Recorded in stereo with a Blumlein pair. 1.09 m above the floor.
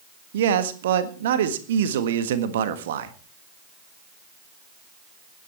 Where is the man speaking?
60° right, 1.6 m.